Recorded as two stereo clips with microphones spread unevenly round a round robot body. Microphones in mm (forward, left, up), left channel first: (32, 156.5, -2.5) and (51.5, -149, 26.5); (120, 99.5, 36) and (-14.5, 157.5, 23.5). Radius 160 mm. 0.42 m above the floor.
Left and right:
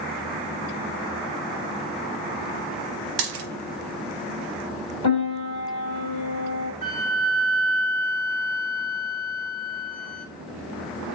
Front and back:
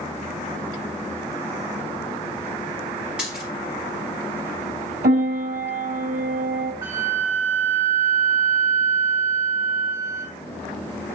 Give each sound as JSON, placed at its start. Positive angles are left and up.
{"t": 3.2, "sound": "a dropped coin", "azimuth_deg": -115, "distance_m": 0.9}
{"t": 5.0, "sound": "a piano", "azimuth_deg": 150, "distance_m": 2.5}
{"t": 6.8, "sound": "a flute", "azimuth_deg": -150, "distance_m": 1.5}